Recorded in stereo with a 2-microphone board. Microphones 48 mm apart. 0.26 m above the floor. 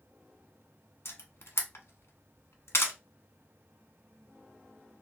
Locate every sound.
1.1 s a camera shutter: 70° left (ahead or behind), 0.8 m